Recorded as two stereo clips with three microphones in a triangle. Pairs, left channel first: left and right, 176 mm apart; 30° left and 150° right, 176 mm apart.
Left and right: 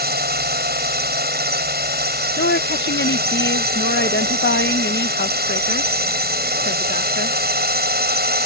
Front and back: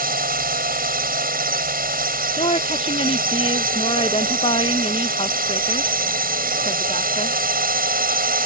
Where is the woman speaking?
85° left.